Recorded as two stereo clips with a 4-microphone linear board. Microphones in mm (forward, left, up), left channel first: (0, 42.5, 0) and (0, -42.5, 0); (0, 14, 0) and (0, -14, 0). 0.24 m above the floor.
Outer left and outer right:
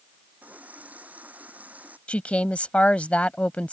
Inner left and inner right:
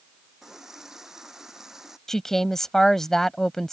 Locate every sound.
0.4 s a running tap: 20° right (ahead or behind)
2.1 s a woman speaking: 15° left (ahead or behind)